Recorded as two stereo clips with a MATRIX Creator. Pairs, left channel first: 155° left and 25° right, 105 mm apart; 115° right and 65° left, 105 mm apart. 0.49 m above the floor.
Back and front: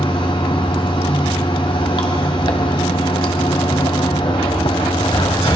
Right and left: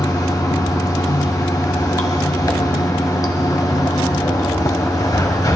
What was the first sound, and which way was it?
Running water, 165° right.